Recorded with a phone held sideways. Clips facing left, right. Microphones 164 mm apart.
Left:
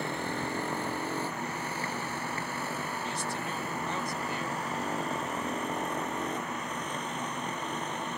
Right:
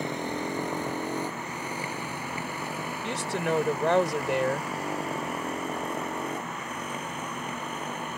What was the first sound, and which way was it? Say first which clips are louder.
A motorcycle: right 3 dB; 15° right (ahead or behind).